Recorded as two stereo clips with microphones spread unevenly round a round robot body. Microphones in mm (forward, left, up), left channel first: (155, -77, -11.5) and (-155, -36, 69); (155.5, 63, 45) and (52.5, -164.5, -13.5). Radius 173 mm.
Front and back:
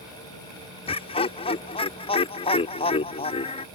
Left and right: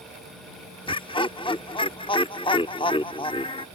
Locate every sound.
0.9 s laughter: 10° right